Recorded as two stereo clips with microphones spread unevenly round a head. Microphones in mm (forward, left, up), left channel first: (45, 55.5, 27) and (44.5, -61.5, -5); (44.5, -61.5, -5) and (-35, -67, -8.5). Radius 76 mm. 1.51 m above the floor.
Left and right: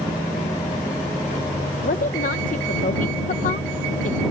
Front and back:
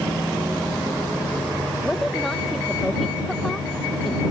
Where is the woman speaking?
90° left.